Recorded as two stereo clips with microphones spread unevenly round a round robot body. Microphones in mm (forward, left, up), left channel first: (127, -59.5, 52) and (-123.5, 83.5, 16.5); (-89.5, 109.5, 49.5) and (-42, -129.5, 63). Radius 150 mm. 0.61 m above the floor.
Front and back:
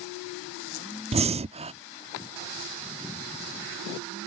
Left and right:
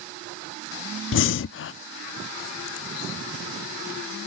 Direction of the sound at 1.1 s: 90° left.